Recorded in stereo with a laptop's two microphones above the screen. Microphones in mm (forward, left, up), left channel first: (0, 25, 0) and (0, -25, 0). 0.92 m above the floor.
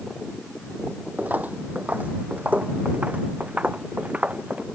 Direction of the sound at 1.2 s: 35° right (ahead or behind).